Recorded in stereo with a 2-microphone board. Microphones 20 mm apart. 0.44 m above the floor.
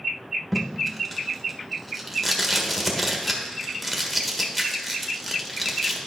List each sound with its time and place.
0.5 s tape being pulled: centre (ahead or behind), 1.3 m